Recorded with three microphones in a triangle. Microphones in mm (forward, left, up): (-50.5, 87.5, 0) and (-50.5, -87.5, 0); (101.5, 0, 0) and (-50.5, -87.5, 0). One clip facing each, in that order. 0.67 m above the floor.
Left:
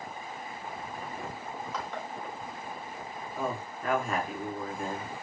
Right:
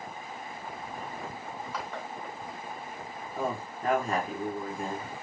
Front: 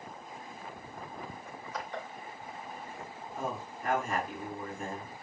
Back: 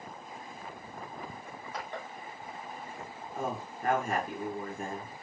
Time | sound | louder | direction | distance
1.4 | crushing | left 1 dB, front 1 dB | 170° right | 3 m
3.4 | a man speaking | right 2 dB, back 2 dB | 140° right | 1.9 m